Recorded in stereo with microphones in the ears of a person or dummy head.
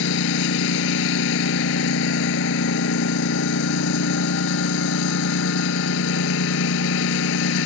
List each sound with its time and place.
0.0 s a lawn mower: 75° left (ahead or behind)